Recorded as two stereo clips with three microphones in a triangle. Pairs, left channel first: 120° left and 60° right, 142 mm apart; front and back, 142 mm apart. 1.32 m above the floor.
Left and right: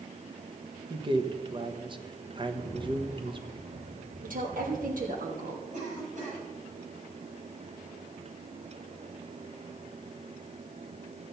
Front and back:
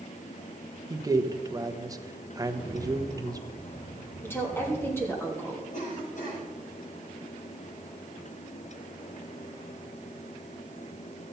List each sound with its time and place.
0.9 s a man speaking: 115° right, 1.1 m
2.5 s a rattle: 25° right, 3.5 m
4.2 s a woman speaking: 75° right, 3 m
5.7 s a cough: 30° right, 7.5 m